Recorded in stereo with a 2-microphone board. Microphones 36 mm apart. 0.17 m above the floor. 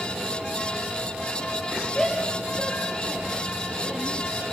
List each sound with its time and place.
1.9 s a shout: 15° left (ahead or behind), 3.5 m; by 4.4 s centre (ahead or behind), 5 m